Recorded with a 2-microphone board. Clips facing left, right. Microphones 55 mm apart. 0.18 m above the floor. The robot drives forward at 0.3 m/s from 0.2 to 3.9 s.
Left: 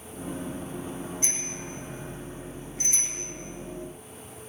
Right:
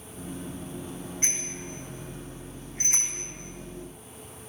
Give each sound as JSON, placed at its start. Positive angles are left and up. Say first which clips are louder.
{"t": 1.2, "sound": "a bicycle bell", "louder": "even", "side_deg": -45, "distance_m": 6.0}